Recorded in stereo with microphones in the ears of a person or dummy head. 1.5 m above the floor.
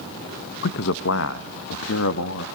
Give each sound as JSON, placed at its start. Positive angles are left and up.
{"t": 0.6, "sound": "a man speaking", "side_deg": 60, "distance_m": 1.2}